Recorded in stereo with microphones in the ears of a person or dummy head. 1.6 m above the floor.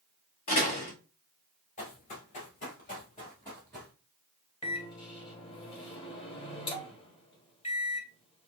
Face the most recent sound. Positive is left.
turn(degrees=30)  # may be behind; listen again after turning